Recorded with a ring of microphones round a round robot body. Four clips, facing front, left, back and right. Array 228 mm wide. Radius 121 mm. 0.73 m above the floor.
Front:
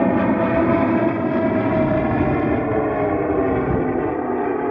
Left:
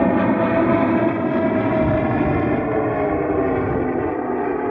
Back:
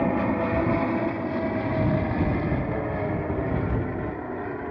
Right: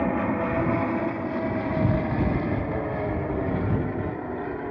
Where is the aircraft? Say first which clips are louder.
Left 8 dB, front 7 dB; 50° left; by 4.7 s 40° left.